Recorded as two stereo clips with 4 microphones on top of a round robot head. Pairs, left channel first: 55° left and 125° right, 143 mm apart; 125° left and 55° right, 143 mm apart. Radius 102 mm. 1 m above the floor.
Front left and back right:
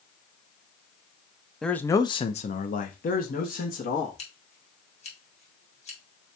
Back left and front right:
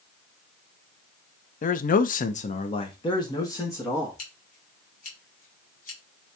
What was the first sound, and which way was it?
A man speaking, 145° left.